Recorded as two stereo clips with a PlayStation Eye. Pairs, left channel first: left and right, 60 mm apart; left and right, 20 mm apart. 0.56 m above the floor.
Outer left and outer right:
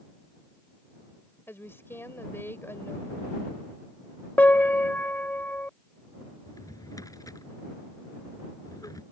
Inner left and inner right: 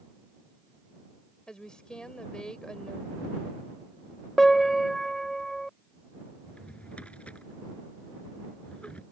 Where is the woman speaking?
40° left (ahead or behind).